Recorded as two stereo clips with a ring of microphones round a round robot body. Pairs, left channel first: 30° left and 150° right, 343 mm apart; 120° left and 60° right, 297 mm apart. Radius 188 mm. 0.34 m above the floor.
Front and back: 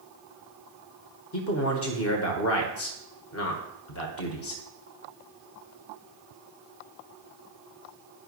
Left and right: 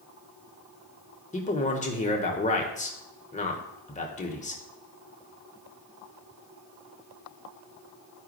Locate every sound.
1.3 s a man speaking: 60° left, 1.2 m